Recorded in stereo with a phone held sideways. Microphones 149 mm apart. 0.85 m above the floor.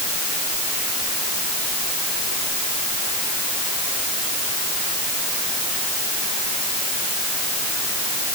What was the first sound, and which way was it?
Only background noise.